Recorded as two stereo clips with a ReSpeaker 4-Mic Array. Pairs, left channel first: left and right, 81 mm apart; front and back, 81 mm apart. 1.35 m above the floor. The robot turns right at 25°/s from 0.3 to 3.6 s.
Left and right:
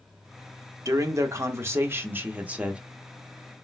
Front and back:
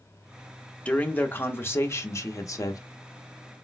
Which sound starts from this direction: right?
A man speaking, at 0.8 s.